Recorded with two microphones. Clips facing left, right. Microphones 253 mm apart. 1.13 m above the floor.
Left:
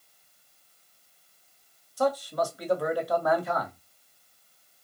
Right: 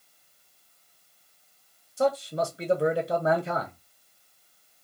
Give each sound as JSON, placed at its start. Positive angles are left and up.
{"t": 2.0, "sound": "a man speaking", "side_deg": -25, "distance_m": 1.0}